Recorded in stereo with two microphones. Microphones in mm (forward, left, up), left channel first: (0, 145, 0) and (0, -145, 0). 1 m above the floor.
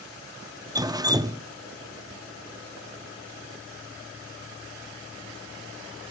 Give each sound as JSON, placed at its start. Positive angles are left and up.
{"t": 0.8, "sound": "dripping", "side_deg": -15, "distance_m": 0.7}